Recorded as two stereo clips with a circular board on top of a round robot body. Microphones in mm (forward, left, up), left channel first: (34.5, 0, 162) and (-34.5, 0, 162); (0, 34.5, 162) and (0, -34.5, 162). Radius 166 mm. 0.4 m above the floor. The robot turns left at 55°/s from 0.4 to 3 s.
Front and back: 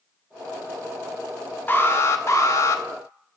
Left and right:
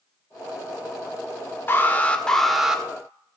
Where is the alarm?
50° left, 1.9 m; by 2.8 s 15° right, 1.9 m.